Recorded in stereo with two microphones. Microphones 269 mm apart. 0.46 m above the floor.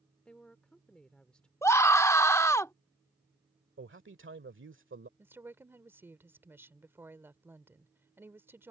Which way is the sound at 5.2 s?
10° right (ahead or behind).